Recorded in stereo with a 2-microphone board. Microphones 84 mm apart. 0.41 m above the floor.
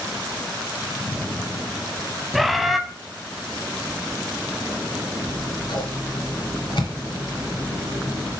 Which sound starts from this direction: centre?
A bird, at 2.3 s.